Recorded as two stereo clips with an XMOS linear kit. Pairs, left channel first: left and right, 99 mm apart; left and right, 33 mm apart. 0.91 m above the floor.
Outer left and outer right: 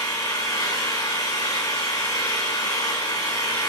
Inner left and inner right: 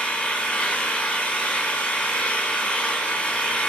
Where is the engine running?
40° left (ahead or behind), 3 m.